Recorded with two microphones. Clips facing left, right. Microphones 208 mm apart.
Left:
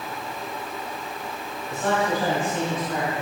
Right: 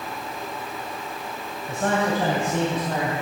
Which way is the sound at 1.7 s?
50° right (ahead or behind).